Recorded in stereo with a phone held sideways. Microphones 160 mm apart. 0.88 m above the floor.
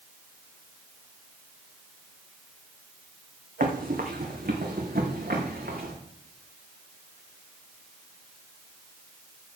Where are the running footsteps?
60° right (ahead or behind), 2.5 m; by 5.9 s 75° right (ahead or behind), 4 m.